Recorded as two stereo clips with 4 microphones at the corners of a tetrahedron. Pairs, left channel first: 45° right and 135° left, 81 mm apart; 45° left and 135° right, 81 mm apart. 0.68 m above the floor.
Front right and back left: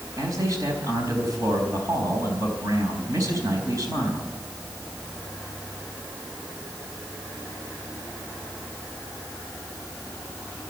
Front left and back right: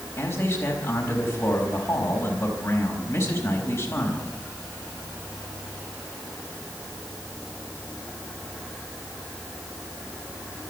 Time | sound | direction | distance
0.2 | a man speaking | 95° left | 4 m